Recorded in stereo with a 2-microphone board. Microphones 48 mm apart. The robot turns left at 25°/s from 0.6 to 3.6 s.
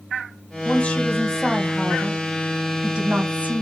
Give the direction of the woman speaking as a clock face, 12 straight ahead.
11 o'clock.